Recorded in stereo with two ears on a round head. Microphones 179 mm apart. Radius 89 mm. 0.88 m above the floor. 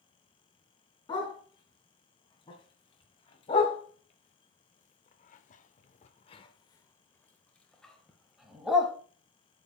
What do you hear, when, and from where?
1.1 s a dog barking: 25° left (ahead or behind), 2.5 m; by 8.9 s 5° right (ahead or behind), 1.6 m